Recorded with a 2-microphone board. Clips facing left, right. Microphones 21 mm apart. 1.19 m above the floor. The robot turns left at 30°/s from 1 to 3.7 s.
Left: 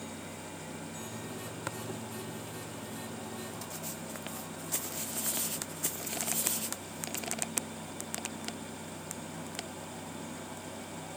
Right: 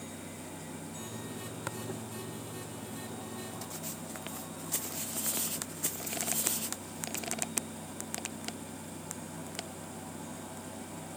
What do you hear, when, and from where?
1.7 s tapping: 5° left (ahead or behind)